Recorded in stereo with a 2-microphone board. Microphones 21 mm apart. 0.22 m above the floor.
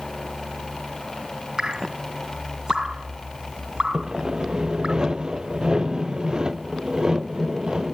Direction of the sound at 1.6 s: 35° right (ahead or behind).